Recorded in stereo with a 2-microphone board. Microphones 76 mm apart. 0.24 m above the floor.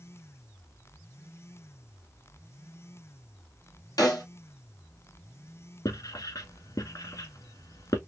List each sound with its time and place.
4.0 s a snare drum: 50° left (ahead or behind), 1.4 m
5.8 s writing: 50° left (ahead or behind), 1.0 m